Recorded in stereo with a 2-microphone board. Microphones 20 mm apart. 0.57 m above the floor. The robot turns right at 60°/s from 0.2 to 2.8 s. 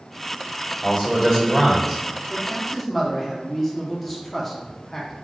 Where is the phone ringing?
No phone ringing in this recording.